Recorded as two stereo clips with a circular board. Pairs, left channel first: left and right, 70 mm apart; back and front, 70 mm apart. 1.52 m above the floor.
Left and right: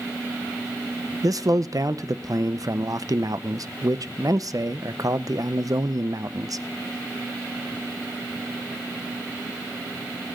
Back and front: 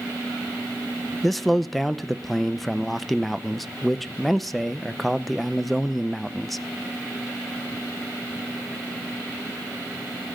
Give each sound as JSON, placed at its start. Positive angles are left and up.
{"t": 1.2, "sound": "a man speaking", "azimuth_deg": -90, "distance_m": 0.7}